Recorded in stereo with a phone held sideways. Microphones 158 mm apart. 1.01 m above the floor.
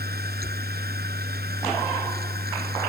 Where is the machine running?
85° right.